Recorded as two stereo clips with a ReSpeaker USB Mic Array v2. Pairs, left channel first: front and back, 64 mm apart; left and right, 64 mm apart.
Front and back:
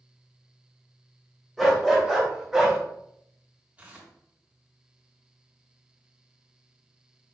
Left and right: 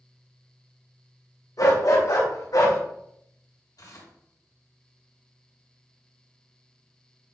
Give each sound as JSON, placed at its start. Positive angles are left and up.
{"t": 1.6, "sound": "a dog barking", "azimuth_deg": 90, "distance_m": 3.5}
{"t": 3.8, "sound": "tearing paper", "azimuth_deg": 110, "distance_m": 3.0}